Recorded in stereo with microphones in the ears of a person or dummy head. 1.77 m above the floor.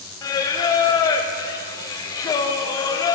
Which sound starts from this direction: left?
Singing, at 0.2 s.